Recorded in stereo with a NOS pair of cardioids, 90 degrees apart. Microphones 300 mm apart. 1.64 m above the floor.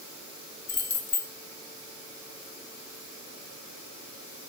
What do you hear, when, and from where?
0.7 s keys jangling: 35° left, 3 m